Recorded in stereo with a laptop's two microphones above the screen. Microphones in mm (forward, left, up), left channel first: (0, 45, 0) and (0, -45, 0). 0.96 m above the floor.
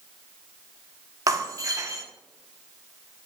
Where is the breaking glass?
40° right (ahead or behind), 0.6 m.